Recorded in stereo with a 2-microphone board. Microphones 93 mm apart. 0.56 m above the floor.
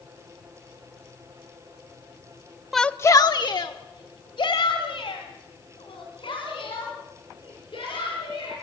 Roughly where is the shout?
Centre.